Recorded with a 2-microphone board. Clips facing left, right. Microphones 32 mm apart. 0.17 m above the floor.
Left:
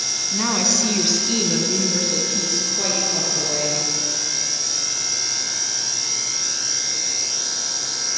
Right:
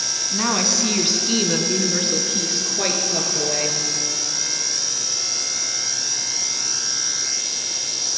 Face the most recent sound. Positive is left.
turn(degrees=-35)  # may be behind; listen again after turning